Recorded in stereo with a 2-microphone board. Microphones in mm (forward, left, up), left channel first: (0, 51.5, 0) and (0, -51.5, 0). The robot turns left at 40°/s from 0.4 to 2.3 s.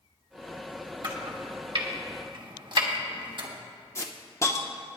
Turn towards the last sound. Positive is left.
turn(degrees=30)  # may be behind; listen again after turning